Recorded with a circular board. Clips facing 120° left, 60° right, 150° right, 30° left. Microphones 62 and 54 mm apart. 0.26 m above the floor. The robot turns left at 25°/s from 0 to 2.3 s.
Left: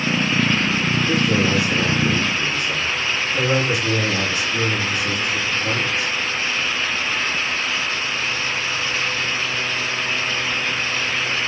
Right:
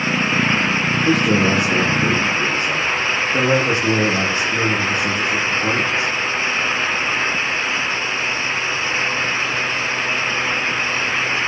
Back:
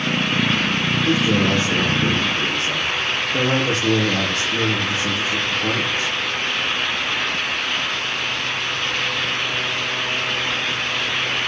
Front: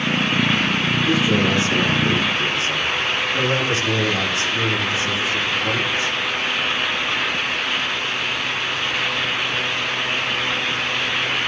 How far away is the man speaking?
About 7 m.